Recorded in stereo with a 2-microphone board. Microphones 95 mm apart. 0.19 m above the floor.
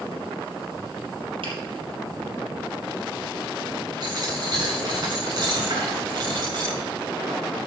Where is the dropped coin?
50° right (ahead or behind), 6 m.